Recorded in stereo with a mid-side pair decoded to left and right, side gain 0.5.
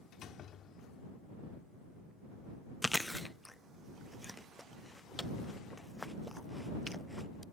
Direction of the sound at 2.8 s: 5° left.